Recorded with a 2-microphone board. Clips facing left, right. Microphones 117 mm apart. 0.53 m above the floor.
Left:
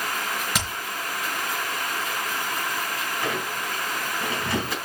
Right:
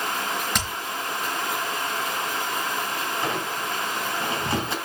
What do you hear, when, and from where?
0.6 s hammering: 5° left (ahead or behind), 4 m
3.2 s a squeak: 25° right (ahead or behind), 3 m